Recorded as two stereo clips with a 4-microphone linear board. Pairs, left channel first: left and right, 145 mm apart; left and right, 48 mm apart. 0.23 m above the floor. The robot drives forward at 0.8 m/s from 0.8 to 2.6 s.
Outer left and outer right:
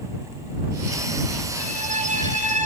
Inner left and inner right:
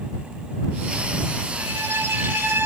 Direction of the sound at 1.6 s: 55° right (ahead or behind).